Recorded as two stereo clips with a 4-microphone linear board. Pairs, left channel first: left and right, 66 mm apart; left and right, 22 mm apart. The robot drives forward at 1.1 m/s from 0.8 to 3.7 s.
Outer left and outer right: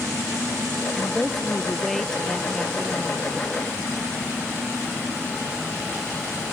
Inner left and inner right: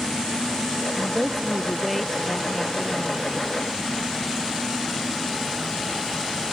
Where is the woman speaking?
5° left (ahead or behind); by 3.3 s centre (ahead or behind).